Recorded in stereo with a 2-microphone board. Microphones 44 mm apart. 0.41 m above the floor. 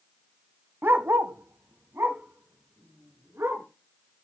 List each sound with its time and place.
0.8 s a dog barking: 50° right (ahead or behind), 0.6 m; by 3.6 s 80° right, 2.5 m